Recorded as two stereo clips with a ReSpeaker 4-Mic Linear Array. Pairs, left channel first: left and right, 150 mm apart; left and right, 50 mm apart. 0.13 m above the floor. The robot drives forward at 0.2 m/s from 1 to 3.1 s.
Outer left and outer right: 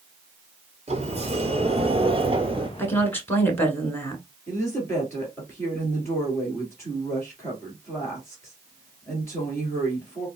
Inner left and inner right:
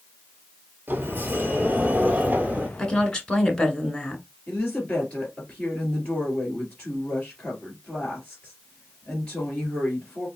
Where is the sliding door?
45° right (ahead or behind), 0.9 m; by 2.7 s 35° right (ahead or behind), 1.1 m.